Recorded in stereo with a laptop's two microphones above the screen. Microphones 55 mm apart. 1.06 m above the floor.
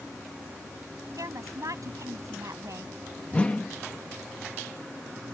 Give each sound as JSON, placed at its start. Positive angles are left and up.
{"t": 1.2, "sound": "a woman speaking", "side_deg": -75}
{"t": 3.3, "sound": "a whoosh", "side_deg": 25}